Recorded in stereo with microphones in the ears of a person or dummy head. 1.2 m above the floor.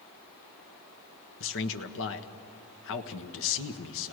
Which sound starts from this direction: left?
A man speaking, at 1.4 s.